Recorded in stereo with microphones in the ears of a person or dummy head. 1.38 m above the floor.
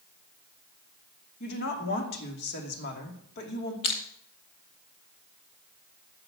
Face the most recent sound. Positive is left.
turn(degrees=25)  # may be behind; listen again after turning